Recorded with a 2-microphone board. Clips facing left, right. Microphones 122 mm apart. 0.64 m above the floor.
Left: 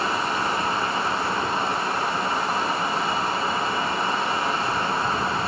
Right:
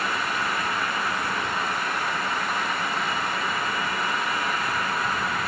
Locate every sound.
Only background noise.